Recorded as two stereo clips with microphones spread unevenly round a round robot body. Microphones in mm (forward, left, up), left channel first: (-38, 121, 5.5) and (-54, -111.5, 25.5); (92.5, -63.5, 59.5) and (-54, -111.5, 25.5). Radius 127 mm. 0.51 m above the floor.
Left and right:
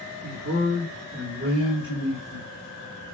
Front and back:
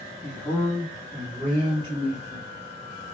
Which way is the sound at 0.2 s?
60° right.